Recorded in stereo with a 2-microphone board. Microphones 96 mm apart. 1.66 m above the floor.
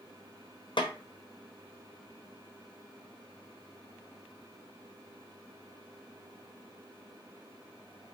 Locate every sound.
0.8 s a snare drum: 55° left (ahead or behind), 0.6 m